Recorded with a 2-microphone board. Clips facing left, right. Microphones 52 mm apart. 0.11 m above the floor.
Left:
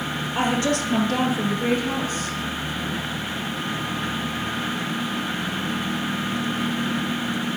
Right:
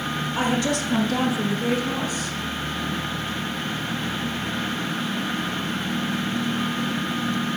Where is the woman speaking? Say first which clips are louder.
Left 2 dB; 40° left (ahead or behind), 3.5 m; by 2.4 s 45° left (ahead or behind), 2 m.